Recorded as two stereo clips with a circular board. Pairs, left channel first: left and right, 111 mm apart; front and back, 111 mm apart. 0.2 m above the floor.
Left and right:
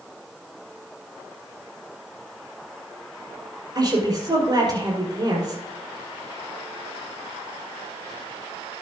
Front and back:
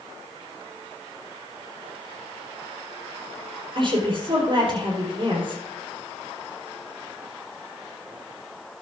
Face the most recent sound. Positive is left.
turn(degrees=-140)